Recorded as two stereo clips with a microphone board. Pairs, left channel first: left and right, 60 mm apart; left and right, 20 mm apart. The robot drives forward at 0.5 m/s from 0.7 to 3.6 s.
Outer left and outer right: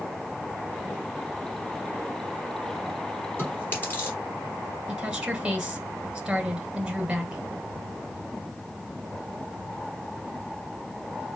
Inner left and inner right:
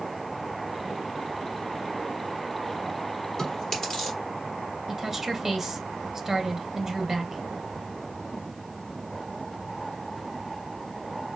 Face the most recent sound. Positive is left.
turn(degrees=-15)  # may be behind; listen again after turning